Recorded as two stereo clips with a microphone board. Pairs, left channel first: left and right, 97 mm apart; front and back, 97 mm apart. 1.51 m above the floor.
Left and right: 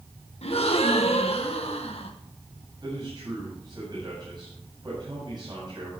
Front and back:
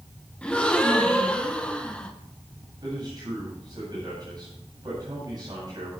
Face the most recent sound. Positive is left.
turn(degrees=-135)